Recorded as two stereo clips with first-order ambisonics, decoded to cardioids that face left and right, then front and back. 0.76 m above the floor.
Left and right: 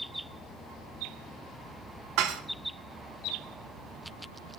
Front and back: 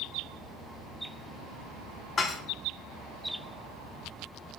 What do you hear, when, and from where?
2.2 s dishes clattering: 65° right, 1.0 m